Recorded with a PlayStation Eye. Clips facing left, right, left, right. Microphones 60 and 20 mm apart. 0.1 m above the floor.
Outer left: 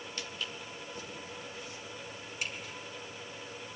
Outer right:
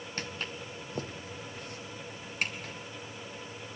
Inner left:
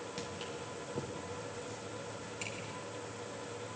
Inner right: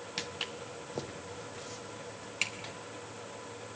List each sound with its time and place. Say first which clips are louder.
0.2 s footsteps: outer right 4 dB, inner right 8 dB; 45° right (ahead or behind), 1.2 m; by 2.7 s 55° right (ahead or behind), 3 m